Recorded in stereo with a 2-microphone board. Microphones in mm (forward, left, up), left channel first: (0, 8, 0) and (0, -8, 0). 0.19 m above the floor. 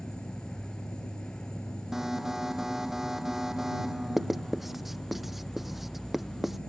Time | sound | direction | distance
0.0 | an insect | 60° left (ahead or behind) | ?
1.9 | an alarm | 25° right (ahead or behind) | ?
4.2 | writing | 10° right (ahead or behind) | ?